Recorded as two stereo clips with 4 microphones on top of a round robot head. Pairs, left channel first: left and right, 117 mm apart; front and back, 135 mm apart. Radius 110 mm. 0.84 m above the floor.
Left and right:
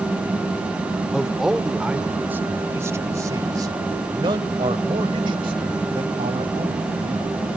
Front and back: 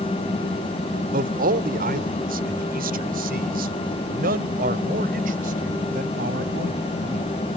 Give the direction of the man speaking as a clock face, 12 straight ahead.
6 o'clock.